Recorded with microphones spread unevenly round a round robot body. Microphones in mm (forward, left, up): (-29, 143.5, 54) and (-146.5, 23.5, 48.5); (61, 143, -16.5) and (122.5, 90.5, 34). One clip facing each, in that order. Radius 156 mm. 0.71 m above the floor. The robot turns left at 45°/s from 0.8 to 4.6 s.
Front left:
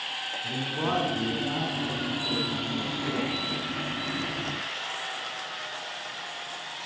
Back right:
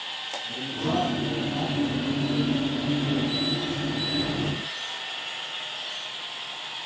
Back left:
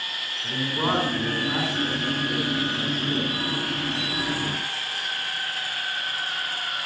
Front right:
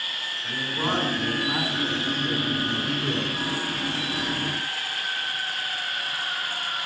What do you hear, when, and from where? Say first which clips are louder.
0.4 s a man speaking: even, back left 3 dB; 70° left, 8 m; by 3.6 s 55° right, 8 m